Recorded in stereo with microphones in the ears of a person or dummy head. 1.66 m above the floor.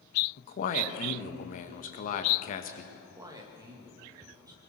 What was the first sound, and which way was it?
A man speaking, 50° left (ahead or behind).